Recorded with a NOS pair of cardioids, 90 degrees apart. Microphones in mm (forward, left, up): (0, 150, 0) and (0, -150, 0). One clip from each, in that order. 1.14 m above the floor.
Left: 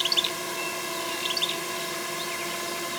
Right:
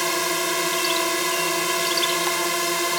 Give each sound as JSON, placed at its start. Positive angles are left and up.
{"t": 0.0, "sound": "a drone", "azimuth_deg": -70}